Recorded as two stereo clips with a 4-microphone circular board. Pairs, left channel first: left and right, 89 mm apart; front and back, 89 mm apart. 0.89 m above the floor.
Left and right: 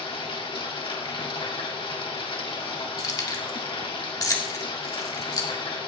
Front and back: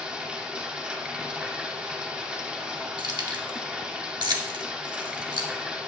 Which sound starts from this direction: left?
Running water, at 0.0 s.